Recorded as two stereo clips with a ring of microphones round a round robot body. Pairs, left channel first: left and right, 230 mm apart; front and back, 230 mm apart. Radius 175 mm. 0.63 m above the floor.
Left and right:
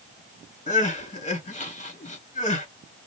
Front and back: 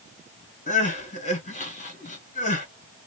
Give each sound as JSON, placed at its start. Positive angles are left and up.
{"t": 0.7, "sound": "crying", "azimuth_deg": 45, "distance_m": 1.8}